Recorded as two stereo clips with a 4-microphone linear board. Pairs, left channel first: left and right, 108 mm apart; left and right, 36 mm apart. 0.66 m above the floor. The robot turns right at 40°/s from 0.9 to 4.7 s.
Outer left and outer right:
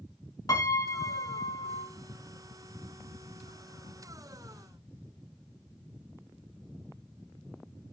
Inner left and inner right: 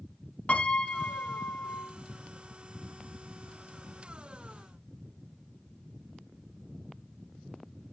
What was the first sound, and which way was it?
A piano, 50° left.